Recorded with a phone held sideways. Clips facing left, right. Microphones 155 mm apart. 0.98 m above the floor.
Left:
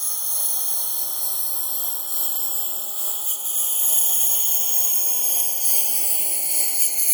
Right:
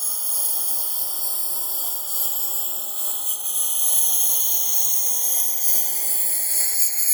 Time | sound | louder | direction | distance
0.0 | a lawn mower | right 1 dB | 5° right (ahead or behind) | ?